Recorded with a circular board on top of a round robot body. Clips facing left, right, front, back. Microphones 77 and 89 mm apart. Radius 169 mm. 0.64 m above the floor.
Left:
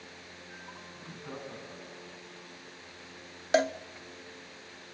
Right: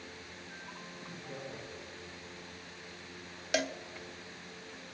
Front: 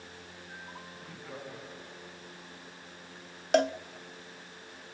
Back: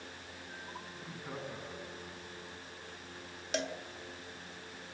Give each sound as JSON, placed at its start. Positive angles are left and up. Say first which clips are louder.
{"t": 0.9, "sound": "laughter", "louder": "left 3 dB, back 2 dB", "azimuth_deg": 105, "distance_m": 9.5}
{"t": 3.5, "sound": "a cowbell", "louder": "left 8 dB, front 12 dB", "azimuth_deg": 35, "distance_m": 0.9}